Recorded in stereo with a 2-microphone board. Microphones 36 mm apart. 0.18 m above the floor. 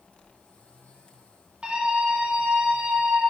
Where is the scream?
30° right (ahead or behind), 1.5 m.